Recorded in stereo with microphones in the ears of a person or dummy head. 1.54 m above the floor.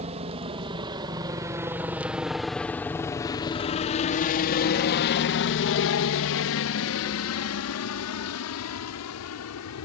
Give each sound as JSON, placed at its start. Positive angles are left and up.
{"t": 0.0, "sound": "a helicopter", "side_deg": -30}